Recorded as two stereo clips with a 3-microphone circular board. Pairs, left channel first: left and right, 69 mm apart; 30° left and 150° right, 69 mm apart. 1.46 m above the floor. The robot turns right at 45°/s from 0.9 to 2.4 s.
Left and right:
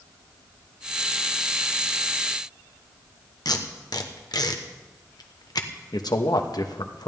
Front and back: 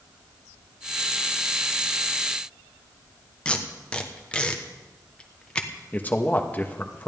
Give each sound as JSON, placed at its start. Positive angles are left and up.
{"t": 3.5, "sound": "tape being pulled", "azimuth_deg": 105, "distance_m": 1.2}
{"t": 5.9, "sound": "a man speaking", "azimuth_deg": 90, "distance_m": 1.3}